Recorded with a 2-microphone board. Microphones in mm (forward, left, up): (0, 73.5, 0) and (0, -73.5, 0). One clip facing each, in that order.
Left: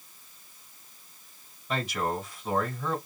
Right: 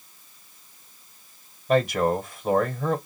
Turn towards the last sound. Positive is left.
turn(degrees=-55)  # may be behind; listen again after turning